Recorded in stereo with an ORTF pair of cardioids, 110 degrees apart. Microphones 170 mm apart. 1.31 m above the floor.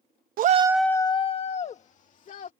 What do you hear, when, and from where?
0.4 s a shout: 60° right; by 2.5 s 50° left